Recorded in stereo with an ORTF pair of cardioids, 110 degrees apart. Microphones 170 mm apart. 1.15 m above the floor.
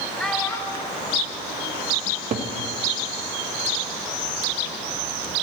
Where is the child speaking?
Straight ahead, 1.6 m; by 1.8 s 75° left, 1.6 m.